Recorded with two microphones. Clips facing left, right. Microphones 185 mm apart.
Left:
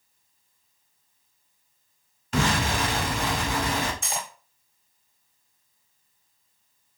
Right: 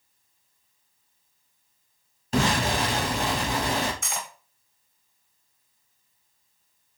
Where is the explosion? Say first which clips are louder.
Right 1 dB; 40° right (ahead or behind), 1.4 m.